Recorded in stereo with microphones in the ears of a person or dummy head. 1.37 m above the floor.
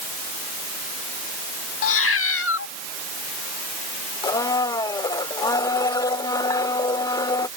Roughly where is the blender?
Left.